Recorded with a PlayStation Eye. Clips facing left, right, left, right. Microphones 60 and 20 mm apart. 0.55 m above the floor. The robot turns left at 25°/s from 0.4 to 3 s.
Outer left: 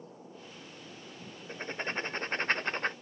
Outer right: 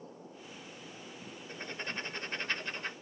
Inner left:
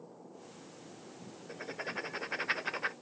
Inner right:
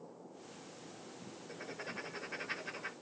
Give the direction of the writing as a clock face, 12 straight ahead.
7 o'clock.